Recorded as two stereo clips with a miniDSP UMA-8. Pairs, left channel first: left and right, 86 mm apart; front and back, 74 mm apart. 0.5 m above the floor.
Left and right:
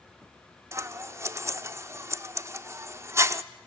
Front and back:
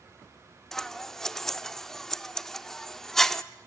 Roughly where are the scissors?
Right.